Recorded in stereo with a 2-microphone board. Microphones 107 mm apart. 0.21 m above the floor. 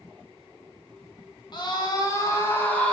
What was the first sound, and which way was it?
A scream, 45° left (ahead or behind).